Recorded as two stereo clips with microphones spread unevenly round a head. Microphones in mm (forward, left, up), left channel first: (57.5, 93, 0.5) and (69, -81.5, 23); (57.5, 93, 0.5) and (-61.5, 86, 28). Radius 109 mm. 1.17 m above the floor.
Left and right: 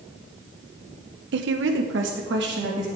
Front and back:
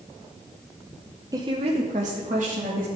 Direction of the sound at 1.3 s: 100° right.